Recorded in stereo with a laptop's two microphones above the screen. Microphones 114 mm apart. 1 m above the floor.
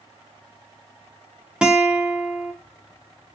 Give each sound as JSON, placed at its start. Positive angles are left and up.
{"t": 1.6, "sound": "a guitar", "side_deg": -10, "distance_m": 0.5}